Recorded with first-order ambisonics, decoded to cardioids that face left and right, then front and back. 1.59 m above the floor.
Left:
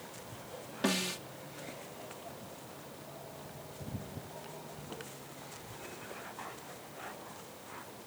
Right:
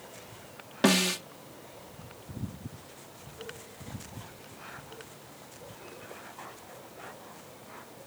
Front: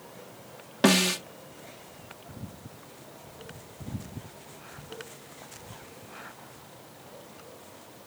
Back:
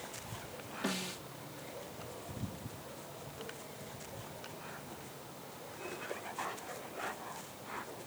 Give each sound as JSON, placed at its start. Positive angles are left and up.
{"t": 0.8, "sound": "a snare drum", "azimuth_deg": -30}